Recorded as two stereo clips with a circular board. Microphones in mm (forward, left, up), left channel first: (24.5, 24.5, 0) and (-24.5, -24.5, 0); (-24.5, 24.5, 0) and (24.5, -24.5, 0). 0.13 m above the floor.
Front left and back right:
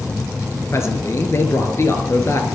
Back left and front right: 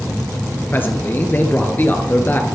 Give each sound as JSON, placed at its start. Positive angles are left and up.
{"t": 0.7, "sound": "a man speaking", "azimuth_deg": 80, "distance_m": 2.0}